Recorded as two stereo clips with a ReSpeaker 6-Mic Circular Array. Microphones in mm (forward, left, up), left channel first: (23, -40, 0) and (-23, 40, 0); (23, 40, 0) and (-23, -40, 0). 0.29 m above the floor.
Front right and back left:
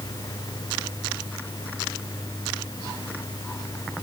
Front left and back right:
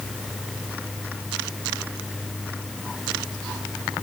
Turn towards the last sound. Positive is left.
No sound to turn to.